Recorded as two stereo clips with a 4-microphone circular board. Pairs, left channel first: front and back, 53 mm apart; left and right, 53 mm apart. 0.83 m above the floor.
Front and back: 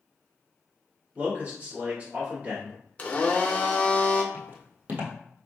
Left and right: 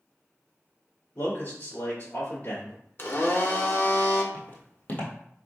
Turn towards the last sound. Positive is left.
turn(degrees=135)